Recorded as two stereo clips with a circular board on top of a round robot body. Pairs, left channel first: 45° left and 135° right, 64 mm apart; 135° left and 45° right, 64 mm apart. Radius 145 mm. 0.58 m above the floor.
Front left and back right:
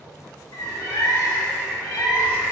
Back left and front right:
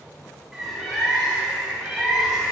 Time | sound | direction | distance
0.5 | a bird | 35° left | 3 m